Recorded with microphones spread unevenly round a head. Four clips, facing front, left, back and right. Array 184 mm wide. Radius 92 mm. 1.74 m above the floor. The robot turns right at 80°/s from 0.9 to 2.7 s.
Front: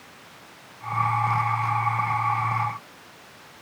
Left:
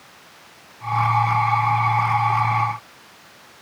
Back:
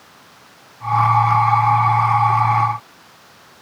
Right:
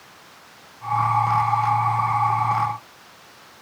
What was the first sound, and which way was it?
Only background noise.